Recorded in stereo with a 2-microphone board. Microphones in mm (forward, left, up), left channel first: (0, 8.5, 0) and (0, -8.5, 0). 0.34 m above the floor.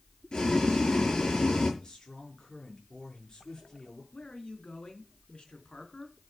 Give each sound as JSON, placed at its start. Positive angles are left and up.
{"t": 0.3, "sound": "boiling", "side_deg": 45, "distance_m": 6.5}
{"t": 1.8, "sound": "a man speaking", "side_deg": 40, "distance_m": 6.0}
{"t": 4.1, "sound": "a man speaking", "side_deg": 75, "distance_m": 3.5}